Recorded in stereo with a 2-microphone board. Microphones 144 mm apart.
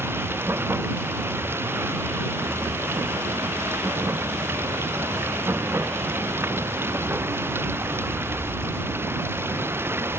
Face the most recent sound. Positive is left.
turn(degrees=-15)  # may be behind; listen again after turning